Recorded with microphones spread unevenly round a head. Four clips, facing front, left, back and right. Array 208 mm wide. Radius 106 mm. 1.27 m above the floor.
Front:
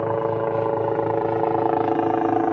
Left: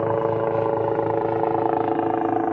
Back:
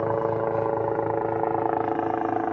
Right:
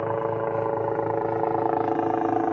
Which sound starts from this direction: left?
A helicopter, at 0.0 s.